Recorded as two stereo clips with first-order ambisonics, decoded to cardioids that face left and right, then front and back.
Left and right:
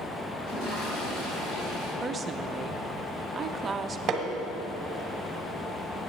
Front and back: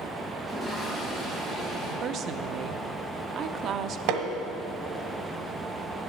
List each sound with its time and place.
0.4 s a toilet flushing: 105° left, 4.5 m
2.0 s a woman speaking: 150° right, 0.6 m
4.1 s hammering: 150° right, 1.2 m